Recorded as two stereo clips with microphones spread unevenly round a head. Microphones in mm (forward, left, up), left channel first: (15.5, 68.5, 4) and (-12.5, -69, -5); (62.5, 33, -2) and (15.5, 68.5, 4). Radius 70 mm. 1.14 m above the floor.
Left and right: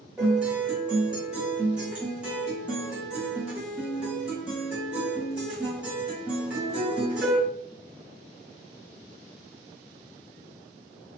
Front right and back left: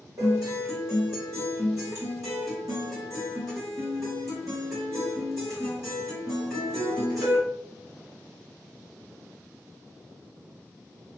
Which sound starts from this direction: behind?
A guitar, at 0.2 s.